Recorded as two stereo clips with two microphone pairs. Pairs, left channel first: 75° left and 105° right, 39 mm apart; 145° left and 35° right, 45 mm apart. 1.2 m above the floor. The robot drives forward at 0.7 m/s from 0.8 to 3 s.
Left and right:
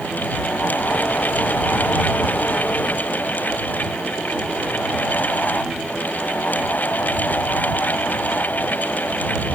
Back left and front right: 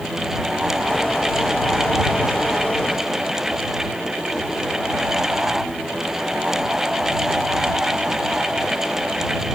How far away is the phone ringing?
No phone ringing in this recording.